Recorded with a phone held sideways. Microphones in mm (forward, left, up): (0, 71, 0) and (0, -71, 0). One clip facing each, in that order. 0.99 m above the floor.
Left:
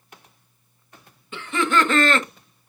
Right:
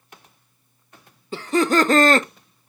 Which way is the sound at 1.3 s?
40° right (ahead or behind).